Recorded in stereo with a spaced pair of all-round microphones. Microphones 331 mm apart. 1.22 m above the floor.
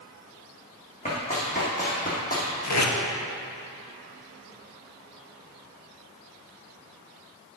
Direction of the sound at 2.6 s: 55° left (ahead or behind).